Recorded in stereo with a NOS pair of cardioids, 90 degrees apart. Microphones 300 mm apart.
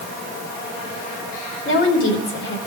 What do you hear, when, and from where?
1.6 s a woman speaking: 40° left, 4.5 m